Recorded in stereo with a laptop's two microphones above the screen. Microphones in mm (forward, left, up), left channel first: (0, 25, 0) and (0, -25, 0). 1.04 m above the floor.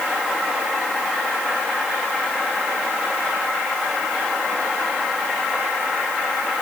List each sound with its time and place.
Only background noise.